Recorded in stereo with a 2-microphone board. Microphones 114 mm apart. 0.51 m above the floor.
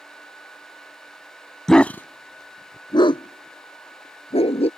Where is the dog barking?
5° left (ahead or behind); by 4.7 s 60° left (ahead or behind).